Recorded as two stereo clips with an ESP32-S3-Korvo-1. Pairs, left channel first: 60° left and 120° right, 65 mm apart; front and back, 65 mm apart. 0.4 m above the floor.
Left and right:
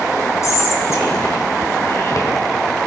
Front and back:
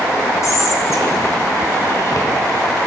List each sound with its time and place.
0.4 s whispering: 25° left, 1.9 m